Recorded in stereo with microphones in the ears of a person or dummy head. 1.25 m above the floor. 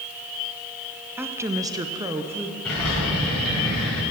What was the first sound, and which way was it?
A woman speaking, 15° right (ahead or behind).